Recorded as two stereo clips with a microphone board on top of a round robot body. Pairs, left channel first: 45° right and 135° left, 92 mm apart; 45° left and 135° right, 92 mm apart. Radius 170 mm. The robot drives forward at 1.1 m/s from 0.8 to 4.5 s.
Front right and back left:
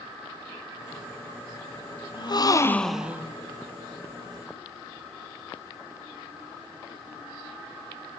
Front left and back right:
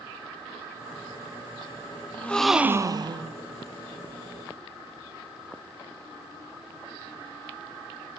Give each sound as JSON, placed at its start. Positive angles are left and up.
{"t": 2.1, "sound": "a gasp", "azimuth_deg": -25, "distance_m": 0.9}